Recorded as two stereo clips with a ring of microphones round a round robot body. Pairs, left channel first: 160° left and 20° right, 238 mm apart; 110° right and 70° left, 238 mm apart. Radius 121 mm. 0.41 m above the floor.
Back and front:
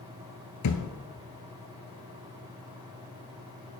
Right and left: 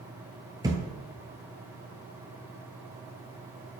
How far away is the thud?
About 0.9 m.